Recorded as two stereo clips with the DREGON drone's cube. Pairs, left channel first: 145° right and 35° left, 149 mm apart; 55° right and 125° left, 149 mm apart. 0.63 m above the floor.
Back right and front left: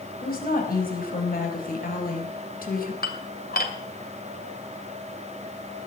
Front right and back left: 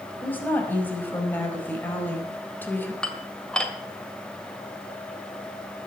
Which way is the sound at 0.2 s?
135° right.